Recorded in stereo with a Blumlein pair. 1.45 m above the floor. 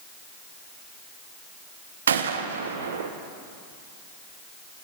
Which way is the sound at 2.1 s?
65° right.